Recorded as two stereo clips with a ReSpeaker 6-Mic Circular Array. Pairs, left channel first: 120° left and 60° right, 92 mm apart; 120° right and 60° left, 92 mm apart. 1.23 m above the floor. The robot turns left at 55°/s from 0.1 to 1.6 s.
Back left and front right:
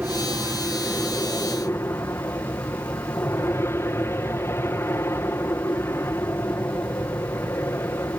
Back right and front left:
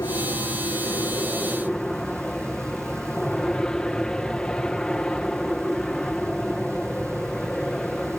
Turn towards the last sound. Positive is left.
turn(degrees=165)